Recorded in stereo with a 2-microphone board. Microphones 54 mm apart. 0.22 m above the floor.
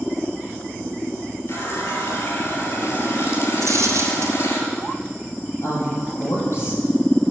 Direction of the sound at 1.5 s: 60° left (ahead or behind).